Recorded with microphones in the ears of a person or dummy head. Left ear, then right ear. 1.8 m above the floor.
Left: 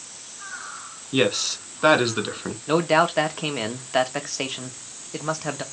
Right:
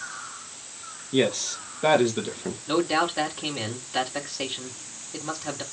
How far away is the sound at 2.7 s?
About 1.2 m.